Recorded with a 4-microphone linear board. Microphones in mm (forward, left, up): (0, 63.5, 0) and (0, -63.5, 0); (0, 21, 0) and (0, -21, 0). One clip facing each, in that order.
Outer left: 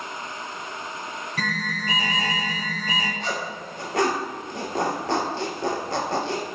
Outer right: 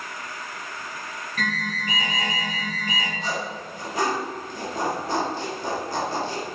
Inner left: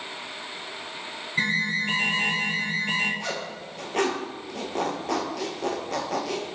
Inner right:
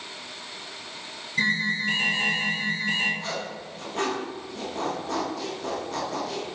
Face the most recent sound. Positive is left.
turn(degrees=80)